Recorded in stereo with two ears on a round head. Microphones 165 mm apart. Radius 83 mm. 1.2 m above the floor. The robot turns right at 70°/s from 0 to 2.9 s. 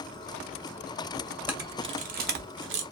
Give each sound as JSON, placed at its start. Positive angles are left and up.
{"t": 1.5, "sound": "a camera shutter", "side_deg": -10, "distance_m": 0.6}